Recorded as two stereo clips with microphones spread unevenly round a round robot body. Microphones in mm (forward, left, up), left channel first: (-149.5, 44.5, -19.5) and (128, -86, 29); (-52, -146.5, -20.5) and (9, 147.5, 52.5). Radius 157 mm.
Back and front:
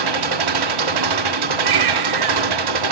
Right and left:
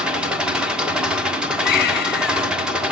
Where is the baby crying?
40° right, 3 m.